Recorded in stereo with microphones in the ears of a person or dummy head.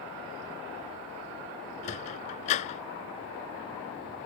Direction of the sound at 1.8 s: 40° left (ahead or behind).